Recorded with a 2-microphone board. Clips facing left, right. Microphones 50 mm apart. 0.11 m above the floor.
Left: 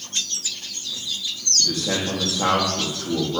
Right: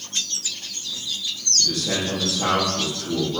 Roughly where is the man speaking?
Left.